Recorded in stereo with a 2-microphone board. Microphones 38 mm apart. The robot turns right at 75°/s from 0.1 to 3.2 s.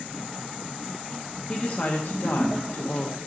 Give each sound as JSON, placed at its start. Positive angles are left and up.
{"t": 1.5, "sound": "a woman speaking", "azimuth_deg": 25, "distance_m": 0.8}